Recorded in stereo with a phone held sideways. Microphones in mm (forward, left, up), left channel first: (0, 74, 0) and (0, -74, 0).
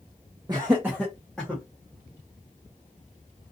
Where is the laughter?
30° right (ahead or behind), 0.7 m; by 1.6 s 5° left (ahead or behind), 1.1 m.